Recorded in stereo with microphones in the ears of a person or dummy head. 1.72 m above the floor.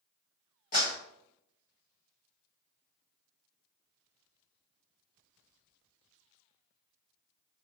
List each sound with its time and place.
0.7 s a clap: 45° left (ahead or behind), 1.4 m